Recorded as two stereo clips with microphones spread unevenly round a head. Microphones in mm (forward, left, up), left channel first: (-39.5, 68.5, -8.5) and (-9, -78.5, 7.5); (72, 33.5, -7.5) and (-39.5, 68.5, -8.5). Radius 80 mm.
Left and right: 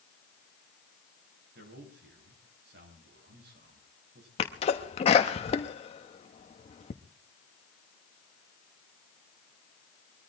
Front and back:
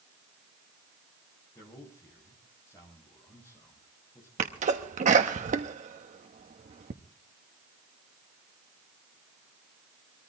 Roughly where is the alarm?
No alarm in this recording.